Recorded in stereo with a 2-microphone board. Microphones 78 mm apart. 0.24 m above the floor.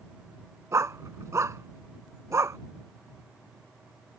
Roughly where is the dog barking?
Right.